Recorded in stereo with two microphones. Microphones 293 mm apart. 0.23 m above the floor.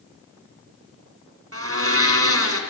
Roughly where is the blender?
Right.